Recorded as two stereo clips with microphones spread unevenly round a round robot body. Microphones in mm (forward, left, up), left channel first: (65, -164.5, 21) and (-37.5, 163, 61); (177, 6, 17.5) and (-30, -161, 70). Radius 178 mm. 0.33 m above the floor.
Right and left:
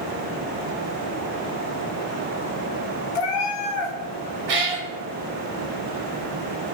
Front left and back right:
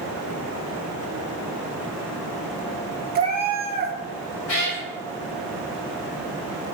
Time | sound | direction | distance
3.1 | a cat meowing | 80° right | 1.0 m
4.5 | a cat meowing | 85° left | 1.6 m